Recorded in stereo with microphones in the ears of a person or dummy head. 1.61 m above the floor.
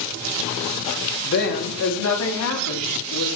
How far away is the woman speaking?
About 3 m.